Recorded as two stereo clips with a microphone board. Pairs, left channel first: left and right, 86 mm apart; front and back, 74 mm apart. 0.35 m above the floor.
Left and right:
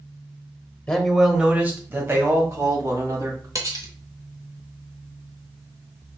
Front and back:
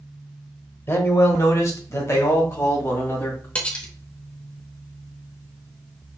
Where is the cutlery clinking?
65° right, 0.8 m.